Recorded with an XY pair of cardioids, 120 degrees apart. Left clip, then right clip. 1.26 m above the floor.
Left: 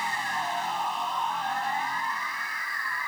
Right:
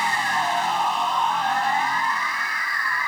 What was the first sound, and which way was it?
A machine running, 35° right.